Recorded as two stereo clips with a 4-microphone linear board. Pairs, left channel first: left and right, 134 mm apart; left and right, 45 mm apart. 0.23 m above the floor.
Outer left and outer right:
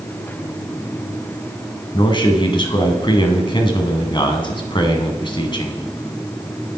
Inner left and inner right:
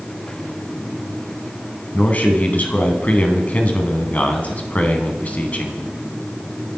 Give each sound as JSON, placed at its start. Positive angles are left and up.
{"t": 1.9, "sound": "a man speaking", "side_deg": 35, "distance_m": 2.0}